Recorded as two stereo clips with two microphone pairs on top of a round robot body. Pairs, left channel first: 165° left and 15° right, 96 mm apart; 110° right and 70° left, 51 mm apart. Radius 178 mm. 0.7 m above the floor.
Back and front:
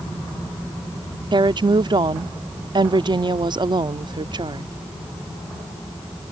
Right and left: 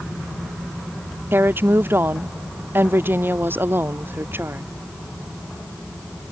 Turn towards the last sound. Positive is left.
turn(degrees=25)